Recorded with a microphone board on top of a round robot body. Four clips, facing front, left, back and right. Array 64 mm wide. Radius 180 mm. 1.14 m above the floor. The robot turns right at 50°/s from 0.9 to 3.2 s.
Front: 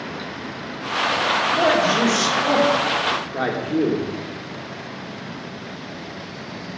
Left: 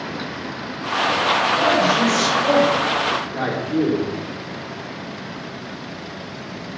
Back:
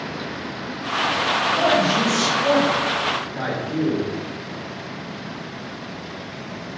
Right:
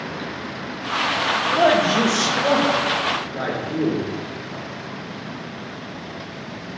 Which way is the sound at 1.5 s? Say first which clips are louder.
Right 4 dB, even; 85° right.